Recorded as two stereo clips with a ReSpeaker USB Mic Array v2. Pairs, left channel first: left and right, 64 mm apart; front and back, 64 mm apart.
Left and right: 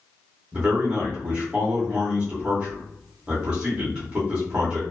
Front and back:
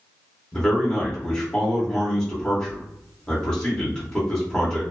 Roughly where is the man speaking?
Ahead right.